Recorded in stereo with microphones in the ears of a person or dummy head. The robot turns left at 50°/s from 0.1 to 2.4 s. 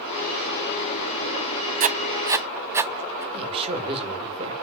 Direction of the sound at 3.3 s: 30° right (ahead or behind).